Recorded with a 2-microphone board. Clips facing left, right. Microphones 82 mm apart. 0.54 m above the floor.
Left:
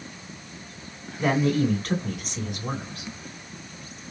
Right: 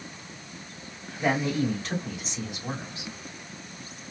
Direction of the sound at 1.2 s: 55° left (ahead or behind).